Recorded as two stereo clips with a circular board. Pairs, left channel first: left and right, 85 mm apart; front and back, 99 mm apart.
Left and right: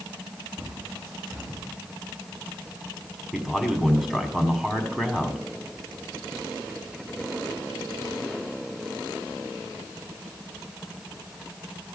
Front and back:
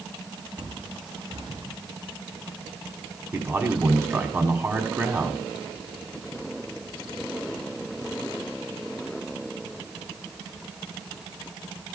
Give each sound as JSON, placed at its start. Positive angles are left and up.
{"t": 0.6, "sound": "a bird", "azimuth_deg": -145, "distance_m": 5.0}
{"t": 3.3, "sound": "a man speaking", "azimuth_deg": -175, "distance_m": 1.1}